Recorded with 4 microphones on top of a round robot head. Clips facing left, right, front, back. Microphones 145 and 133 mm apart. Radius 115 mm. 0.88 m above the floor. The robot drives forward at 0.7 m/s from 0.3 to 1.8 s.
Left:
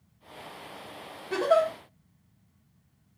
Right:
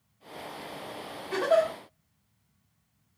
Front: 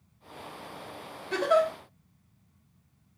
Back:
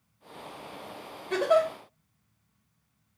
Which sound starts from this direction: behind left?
A giggle, at 1.3 s.